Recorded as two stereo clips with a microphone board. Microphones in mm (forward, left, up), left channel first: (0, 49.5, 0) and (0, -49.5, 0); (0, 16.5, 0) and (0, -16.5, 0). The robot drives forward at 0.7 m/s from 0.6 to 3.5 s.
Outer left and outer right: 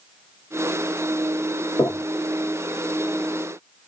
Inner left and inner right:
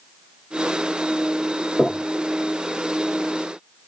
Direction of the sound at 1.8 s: 30° left (ahead or behind).